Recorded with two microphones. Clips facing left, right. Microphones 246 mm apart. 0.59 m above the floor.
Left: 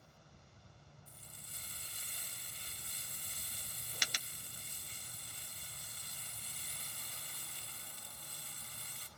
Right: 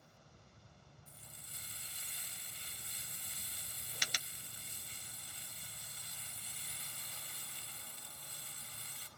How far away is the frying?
About 1.1 m.